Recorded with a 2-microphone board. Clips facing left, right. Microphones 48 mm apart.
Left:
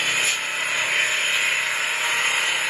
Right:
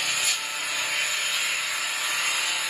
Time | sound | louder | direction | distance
0.0 | an engine running | left 5 dB | 45° left (ahead or behind) | 1.3 m